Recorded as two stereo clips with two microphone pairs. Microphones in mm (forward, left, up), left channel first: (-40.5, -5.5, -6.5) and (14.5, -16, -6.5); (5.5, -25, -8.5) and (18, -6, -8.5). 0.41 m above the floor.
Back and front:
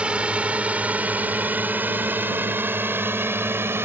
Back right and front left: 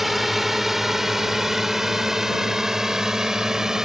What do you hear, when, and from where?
0.0 s a drone: 5° right; by 3.9 s 5° left